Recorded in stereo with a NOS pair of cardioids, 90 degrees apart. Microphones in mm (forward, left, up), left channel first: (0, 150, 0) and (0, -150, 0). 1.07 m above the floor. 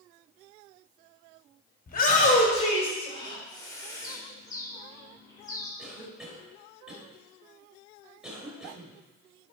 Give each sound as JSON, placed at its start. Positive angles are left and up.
{"t": 1.9, "sound": "a shout", "azimuth_deg": 30, "distance_m": 3.5}
{"t": 4.0, "sound": "a bird", "azimuth_deg": 10, "distance_m": 3.5}
{"t": 5.8, "sound": "a cough", "azimuth_deg": 0, "distance_m": 4.5}